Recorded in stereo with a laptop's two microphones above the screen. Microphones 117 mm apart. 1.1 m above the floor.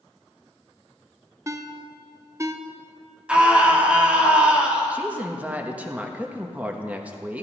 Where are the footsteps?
No footsteps in this recording.